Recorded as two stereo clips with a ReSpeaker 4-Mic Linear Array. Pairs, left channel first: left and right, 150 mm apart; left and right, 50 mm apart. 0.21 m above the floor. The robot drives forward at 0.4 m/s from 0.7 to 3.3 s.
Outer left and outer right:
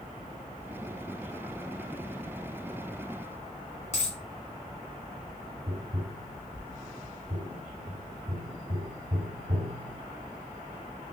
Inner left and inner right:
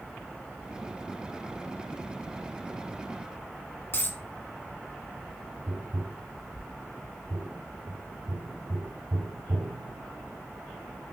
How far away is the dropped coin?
About 0.9 m.